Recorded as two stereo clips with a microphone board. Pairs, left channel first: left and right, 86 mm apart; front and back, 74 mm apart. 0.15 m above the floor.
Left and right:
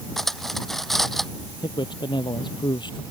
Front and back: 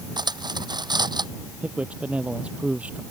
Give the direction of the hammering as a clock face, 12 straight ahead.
I don't hear hammering.